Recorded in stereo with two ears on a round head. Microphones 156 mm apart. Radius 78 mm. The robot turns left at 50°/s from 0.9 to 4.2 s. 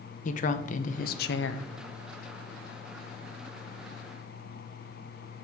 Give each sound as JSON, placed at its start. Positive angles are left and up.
{"t": 0.2, "sound": "a woman speaking", "azimuth_deg": 135, "distance_m": 0.6}